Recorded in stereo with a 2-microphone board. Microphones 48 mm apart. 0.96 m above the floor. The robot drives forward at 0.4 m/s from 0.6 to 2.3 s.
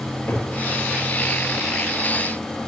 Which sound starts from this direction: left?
A cupboard door, at 0.3 s.